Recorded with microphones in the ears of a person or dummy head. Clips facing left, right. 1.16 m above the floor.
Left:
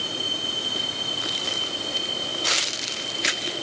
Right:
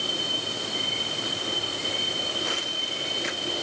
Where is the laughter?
I don't hear laughter.